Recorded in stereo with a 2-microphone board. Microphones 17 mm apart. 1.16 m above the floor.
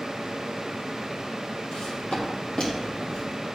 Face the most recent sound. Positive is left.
turn(degrees=70)  # may be behind; listen again after turning